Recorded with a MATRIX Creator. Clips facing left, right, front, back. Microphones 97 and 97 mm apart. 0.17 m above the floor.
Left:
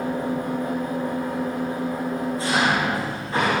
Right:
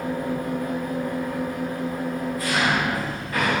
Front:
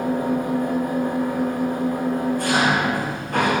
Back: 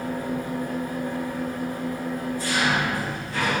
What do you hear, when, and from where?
0.0 s an engine running: 30° left, 5 m